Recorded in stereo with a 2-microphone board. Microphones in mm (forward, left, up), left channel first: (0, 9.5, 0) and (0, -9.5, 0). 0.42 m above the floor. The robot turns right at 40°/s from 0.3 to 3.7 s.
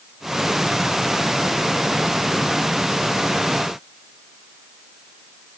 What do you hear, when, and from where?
Only background noise.